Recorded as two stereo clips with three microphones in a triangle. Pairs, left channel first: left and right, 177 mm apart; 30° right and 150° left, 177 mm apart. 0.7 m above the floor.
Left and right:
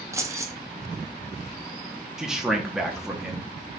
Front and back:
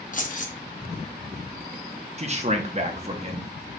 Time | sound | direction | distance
0.1 | keys jangling | 20° right | 0.6 m
2.2 | a man speaking | 175° right | 0.8 m